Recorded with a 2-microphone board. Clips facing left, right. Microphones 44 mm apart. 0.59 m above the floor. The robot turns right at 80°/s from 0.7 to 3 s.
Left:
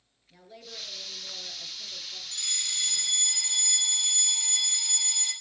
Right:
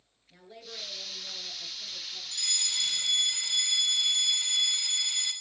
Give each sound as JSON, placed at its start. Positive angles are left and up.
{"t": 0.3, "sound": "a woman speaking", "azimuth_deg": -15, "distance_m": 9.0}
{"t": 2.3, "sound": "a fire alarm", "azimuth_deg": 145, "distance_m": 5.5}